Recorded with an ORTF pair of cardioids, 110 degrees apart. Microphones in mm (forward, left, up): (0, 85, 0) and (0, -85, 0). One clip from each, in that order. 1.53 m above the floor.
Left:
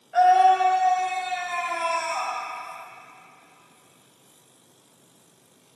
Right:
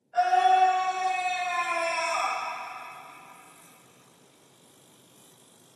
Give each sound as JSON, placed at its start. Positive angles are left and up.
{"t": 0.1, "sound": "a scream", "azimuth_deg": 55, "distance_m": 2.0}